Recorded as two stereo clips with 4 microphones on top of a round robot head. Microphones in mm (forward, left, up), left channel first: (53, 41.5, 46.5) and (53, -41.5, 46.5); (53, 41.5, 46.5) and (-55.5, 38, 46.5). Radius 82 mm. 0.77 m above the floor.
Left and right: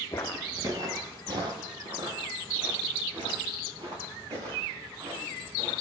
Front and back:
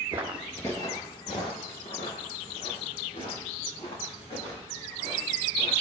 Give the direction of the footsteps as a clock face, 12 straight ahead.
7 o'clock.